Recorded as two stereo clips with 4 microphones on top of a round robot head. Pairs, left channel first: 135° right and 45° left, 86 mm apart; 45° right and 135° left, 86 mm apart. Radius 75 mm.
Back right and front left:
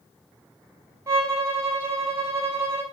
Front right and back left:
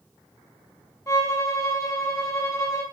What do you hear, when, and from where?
1.1 s a violin: 5° right, 1.2 m